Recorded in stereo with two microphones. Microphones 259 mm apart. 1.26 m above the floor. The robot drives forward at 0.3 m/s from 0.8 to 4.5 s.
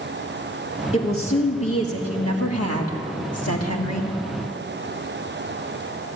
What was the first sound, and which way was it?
A woman speaking, 60° left (ahead or behind).